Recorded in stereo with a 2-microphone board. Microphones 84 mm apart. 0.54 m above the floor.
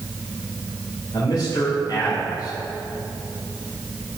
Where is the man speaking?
60° left (ahead or behind), 2.0 m.